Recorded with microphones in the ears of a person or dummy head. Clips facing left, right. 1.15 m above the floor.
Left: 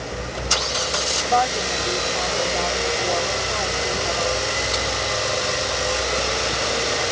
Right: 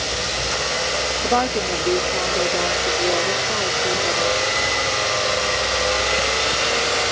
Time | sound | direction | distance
1.2 | a woman speaking | 45° right (ahead or behind) | ?